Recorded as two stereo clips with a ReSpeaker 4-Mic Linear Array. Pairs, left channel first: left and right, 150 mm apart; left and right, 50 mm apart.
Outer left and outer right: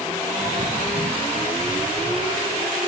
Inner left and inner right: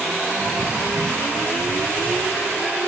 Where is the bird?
40° right (ahead or behind), 1.4 m.